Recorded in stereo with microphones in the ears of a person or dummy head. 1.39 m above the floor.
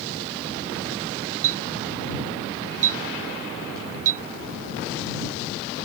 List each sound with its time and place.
1.4 s a clink: 45° right (ahead or behind)